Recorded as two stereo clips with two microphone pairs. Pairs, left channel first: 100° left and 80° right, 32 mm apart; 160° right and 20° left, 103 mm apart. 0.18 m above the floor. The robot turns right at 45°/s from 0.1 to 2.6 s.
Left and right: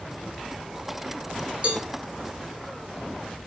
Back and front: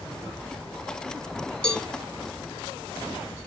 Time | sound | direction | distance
1.6 | a cowbell | 85° right | 0.8 m